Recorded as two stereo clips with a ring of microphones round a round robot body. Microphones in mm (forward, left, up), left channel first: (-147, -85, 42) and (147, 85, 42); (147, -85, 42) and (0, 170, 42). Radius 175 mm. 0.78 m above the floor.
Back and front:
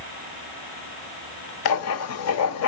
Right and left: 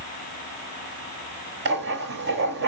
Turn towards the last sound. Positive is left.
turn(degrees=175)